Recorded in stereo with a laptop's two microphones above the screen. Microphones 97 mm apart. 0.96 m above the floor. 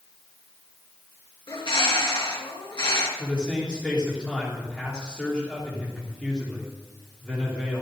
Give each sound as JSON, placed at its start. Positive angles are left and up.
{"t": 1.5, "sound": "a bird", "side_deg": 65, "distance_m": 3.0}
{"t": 3.2, "sound": "a man speaking", "side_deg": 10, "distance_m": 3.0}